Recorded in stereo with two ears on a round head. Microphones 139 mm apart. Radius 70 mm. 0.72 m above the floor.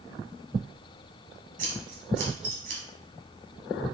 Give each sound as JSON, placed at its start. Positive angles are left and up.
{"t": 1.6, "sound": "scissors", "side_deg": -50, "distance_m": 2.0}